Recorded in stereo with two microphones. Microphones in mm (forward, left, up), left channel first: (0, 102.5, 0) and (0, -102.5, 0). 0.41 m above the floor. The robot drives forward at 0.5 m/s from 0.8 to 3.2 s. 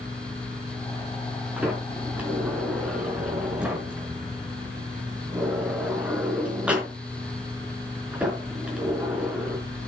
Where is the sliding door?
5° right (ahead or behind), 4 m.